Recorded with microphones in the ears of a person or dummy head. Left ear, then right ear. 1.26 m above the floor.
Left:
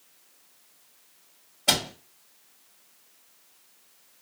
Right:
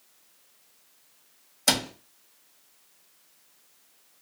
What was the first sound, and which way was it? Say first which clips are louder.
A cupboard door: left 1 dB; 60° right (ahead or behind).